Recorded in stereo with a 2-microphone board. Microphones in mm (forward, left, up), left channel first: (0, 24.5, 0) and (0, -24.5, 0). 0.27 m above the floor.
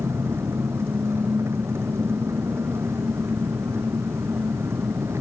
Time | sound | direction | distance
0.0 | an engine running | 60° right (ahead or behind) | ?